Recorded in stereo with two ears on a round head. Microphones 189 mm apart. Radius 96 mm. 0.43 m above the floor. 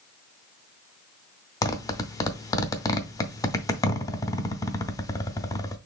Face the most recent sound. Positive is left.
turn(degrees=15)  # may be behind; listen again after turning